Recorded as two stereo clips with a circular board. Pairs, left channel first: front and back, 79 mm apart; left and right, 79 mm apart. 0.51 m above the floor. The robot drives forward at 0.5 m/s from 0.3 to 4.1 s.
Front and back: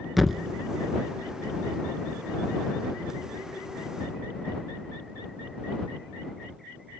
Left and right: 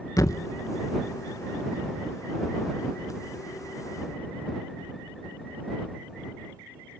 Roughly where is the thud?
Left.